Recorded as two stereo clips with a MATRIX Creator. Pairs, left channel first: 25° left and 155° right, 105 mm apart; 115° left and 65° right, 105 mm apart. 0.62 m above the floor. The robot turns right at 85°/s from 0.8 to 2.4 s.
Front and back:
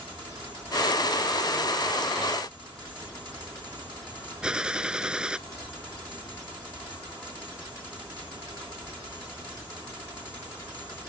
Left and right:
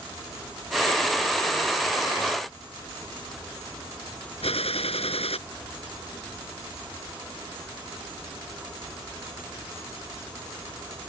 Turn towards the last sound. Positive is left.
turn(degrees=120)